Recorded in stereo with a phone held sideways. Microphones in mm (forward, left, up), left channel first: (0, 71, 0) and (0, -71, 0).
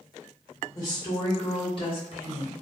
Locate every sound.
0.8 s a woman speaking: 25° left (ahead or behind), 1.8 m; by 2.5 s 55° left (ahead or behind), 1.3 m